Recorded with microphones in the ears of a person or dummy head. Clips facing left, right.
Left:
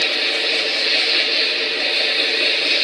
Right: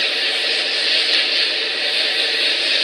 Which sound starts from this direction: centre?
An insect, at 0.0 s.